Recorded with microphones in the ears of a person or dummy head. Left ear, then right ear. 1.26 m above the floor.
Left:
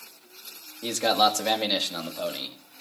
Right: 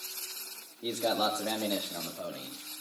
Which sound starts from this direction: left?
A man speaking, at 0.8 s.